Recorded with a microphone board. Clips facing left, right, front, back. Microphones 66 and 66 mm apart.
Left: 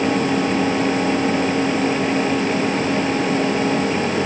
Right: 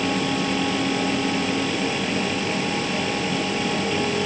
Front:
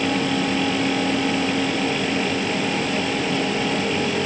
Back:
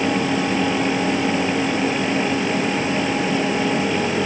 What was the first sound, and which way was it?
Only background noise.